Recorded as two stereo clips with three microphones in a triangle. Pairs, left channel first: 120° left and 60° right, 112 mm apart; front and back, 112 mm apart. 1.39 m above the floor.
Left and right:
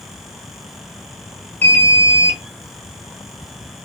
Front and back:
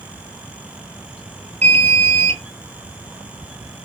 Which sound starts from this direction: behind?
An alarm, at 1.6 s.